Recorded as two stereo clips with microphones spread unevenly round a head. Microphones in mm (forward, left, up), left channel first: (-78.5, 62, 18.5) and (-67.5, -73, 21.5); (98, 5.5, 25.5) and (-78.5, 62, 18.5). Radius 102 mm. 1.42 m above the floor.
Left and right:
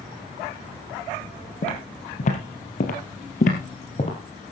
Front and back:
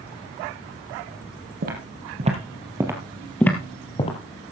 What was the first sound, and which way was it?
Footsteps, 125° left.